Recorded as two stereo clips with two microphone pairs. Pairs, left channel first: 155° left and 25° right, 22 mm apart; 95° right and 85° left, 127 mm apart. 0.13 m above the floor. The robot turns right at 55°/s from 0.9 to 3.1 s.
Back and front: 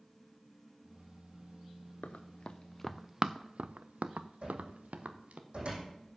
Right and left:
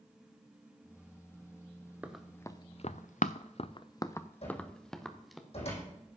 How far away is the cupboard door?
About 6 m.